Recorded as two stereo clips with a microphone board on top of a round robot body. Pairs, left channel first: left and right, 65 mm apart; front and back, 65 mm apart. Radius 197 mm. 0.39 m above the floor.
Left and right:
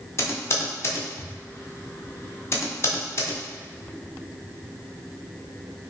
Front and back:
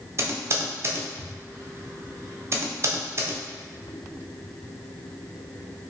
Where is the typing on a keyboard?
135° left, 0.5 m.